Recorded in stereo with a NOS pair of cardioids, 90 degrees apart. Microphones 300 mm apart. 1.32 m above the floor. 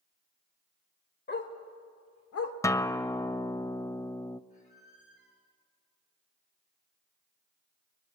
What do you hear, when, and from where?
1.3 s a dog barking: 35° left, 2.5 m; by 2.5 s 65° left, 1.7 m
2.6 s a guitar: 10° left, 0.6 m
4.5 s a squeak: 25° left, 8 m